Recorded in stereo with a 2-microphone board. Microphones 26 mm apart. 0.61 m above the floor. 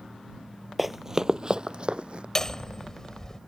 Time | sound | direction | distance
0.8 | running footsteps | 5° right (ahead or behind) | ?
2.4 | hammering | 20° left (ahead or behind) | ?